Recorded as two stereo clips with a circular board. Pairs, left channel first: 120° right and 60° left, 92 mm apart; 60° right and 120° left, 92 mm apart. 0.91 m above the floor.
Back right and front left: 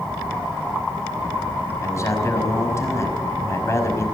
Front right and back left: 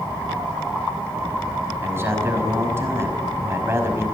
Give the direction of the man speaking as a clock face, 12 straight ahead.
6 o'clock.